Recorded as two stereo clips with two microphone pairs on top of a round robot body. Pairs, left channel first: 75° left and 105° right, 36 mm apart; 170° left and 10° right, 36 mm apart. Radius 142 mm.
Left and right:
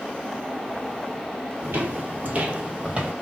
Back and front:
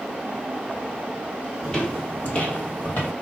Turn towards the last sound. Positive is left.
turn(degrees=-165)